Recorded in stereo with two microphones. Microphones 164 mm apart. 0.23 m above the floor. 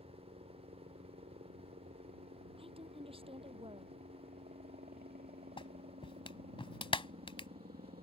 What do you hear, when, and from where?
0.0 s a helicopter: 60° right (ahead or behind); by 8.0 s 70° right (ahead or behind)
2.6 s a woman speaking: 35° right (ahead or behind)
5.6 s a clap: 35° left (ahead or behind)